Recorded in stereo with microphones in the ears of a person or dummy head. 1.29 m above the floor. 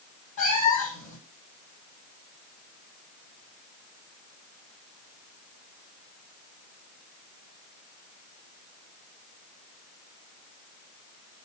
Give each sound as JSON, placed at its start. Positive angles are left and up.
{"t": 0.4, "sound": "a cat meowing", "side_deg": 45, "distance_m": 7.0}